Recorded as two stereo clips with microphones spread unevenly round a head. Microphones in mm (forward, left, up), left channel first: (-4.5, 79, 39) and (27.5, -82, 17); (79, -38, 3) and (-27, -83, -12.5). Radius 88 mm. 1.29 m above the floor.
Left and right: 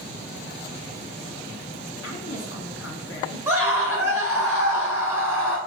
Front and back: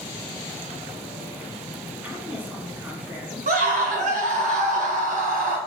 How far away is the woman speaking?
About 2.5 m.